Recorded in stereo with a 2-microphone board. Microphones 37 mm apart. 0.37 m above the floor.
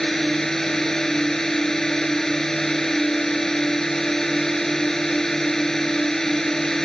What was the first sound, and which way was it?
A drone, 15° left (ahead or behind).